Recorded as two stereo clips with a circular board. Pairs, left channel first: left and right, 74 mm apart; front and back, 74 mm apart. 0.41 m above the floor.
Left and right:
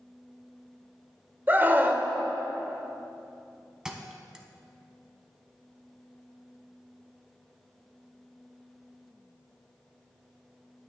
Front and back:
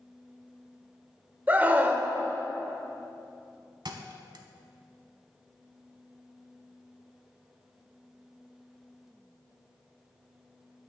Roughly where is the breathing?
No breathing in this recording.